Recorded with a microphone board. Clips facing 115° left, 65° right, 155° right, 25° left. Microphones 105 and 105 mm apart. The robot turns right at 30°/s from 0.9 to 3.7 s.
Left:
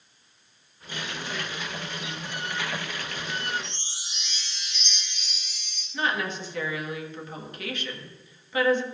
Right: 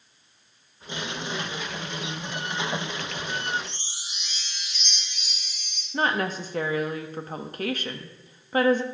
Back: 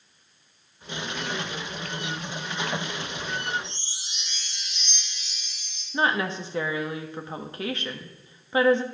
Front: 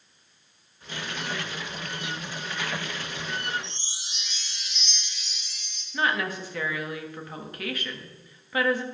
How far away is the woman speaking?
About 1.5 m.